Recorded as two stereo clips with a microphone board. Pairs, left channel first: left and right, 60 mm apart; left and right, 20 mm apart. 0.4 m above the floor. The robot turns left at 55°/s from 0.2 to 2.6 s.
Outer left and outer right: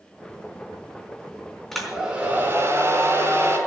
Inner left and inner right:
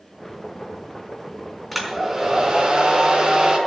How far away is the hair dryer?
About 4 m.